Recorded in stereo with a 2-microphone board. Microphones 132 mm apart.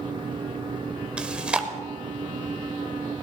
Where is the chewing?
5° right (ahead or behind), 1.2 m.